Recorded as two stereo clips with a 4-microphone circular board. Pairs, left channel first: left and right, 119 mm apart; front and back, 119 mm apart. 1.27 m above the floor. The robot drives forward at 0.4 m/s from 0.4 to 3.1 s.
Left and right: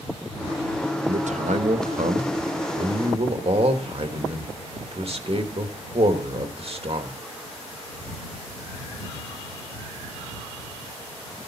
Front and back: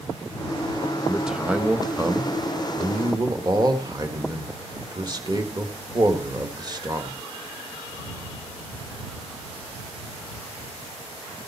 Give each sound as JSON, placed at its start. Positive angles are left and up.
{"t": 1.1, "sound": "a man speaking", "azimuth_deg": -90, "distance_m": 1.3}